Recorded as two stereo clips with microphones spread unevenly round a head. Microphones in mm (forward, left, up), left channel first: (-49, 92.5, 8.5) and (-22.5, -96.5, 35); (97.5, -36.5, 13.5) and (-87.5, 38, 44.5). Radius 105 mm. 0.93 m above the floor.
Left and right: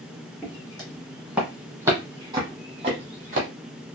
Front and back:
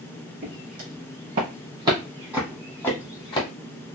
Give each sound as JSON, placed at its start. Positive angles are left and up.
{"t": 0.4, "sound": "footsteps", "azimuth_deg": -175, "distance_m": 1.9}